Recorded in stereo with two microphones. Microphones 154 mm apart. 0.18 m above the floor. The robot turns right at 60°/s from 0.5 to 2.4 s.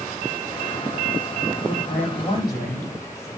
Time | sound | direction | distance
1.6 | a man speaking | 105° left | 8 m